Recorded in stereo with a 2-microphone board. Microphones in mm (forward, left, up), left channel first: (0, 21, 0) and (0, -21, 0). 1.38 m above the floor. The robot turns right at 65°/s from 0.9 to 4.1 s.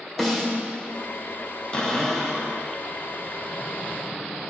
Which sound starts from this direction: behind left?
A cupboard door, at 1.7 s.